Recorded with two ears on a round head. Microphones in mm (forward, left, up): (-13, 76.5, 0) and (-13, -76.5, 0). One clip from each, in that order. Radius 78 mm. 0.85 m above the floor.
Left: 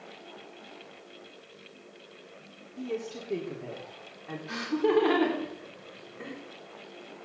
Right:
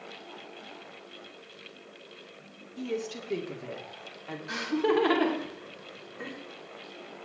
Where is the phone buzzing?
I don't hear a phone buzzing.